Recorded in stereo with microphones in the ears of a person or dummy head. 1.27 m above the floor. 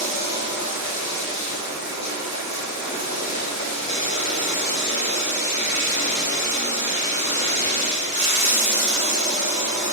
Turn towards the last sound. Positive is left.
turn(degrees=-30)  # may be behind; listen again after turning